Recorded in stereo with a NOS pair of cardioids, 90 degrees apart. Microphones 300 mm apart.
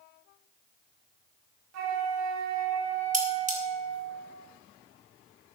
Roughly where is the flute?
Ahead right.